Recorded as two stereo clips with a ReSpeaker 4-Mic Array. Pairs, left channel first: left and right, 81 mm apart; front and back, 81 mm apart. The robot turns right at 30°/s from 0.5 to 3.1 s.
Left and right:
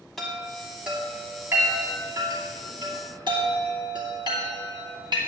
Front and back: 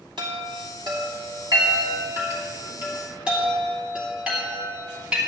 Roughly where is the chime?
Behind.